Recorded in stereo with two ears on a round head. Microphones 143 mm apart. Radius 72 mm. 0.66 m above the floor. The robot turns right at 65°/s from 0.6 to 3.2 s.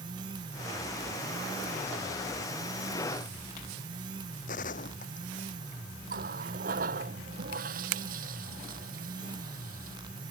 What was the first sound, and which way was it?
A gunshot, 55° left (ahead or behind).